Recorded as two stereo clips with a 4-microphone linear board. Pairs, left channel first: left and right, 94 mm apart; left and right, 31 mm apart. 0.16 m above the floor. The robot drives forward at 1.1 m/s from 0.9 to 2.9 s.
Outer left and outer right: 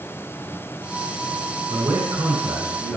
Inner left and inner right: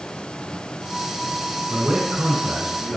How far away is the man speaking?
About 1.8 m.